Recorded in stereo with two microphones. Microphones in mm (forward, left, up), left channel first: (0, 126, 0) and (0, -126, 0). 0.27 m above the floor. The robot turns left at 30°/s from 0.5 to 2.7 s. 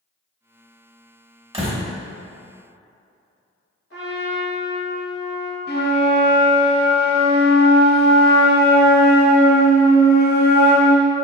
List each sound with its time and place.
1.5 s a door slam: 20° right (ahead or behind), 0.8 m
3.9 s a trumpet: 55° left (ahead or behind), 1.6 m
5.7 s a flute: 35° left (ahead or behind), 1.0 m